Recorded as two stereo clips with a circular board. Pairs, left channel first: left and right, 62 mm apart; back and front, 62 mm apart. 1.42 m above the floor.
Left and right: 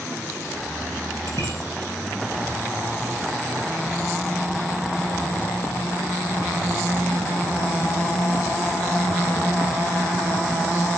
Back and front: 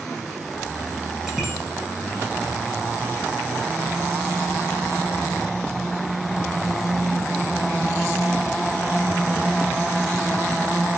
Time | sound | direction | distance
1.3 | a bicycle bell | 85° right | 10 m